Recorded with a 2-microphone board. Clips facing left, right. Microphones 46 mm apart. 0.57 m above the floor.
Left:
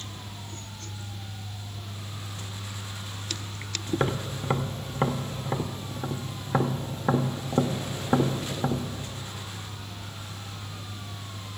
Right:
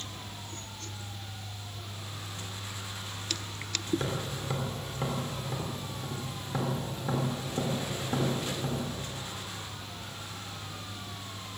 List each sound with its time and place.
3.9 s tapping: 40° left (ahead or behind), 1.6 m